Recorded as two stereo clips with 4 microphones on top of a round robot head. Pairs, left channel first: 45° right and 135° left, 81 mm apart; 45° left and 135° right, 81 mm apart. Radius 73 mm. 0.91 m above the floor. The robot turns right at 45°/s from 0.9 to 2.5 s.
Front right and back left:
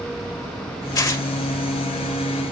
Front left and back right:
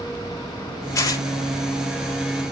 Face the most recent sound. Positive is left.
turn(degrees=65)